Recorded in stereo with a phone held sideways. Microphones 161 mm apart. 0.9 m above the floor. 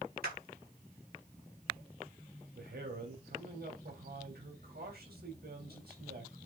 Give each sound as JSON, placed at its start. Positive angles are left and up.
{"t": 0.2, "sound": "a clap", "side_deg": -75, "distance_m": 5.0}
{"t": 2.5, "sound": "a man speaking", "side_deg": -75, "distance_m": 3.5}